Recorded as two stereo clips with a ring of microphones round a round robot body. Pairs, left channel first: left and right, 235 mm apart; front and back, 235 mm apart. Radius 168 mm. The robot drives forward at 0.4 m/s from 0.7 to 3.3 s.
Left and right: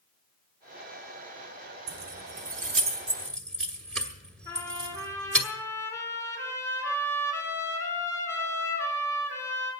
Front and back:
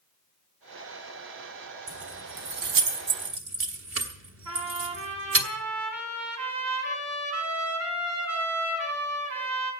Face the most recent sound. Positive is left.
turn(degrees=-170)